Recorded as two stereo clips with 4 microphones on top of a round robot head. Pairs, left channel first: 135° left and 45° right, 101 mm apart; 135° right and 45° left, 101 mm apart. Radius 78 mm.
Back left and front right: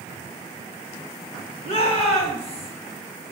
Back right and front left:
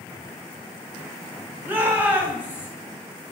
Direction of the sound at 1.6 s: 115° left.